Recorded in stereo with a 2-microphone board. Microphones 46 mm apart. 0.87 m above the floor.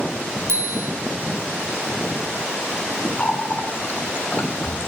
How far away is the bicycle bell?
About 8 m.